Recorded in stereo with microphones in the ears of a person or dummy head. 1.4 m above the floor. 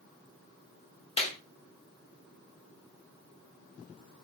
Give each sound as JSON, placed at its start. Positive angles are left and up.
{"t": 1.2, "sound": "a clap", "side_deg": 30, "distance_m": 1.2}